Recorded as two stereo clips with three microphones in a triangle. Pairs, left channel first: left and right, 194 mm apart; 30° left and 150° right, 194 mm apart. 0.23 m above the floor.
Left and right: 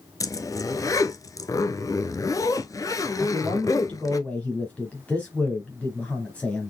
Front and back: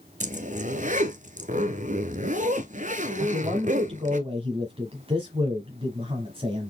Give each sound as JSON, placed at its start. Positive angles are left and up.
{"t": 0.2, "sound": "a zipper", "azimuth_deg": 165, "distance_m": 0.7}
{"t": 3.2, "sound": "a man speaking", "azimuth_deg": 170, "distance_m": 1.2}